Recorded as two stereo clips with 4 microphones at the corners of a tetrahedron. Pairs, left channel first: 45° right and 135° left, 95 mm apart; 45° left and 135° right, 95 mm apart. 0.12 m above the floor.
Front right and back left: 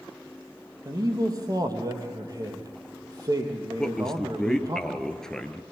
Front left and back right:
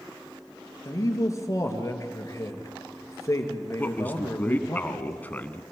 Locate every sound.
0.8 s a man speaking: 95° left, 3 m
3.8 s a man speaking: 25° left, 1.2 m